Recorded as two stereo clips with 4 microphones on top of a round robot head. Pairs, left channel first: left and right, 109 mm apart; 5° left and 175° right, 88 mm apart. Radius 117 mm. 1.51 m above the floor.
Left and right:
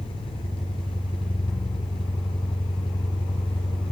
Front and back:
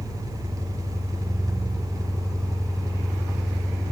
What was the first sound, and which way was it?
An engine running, 135° left.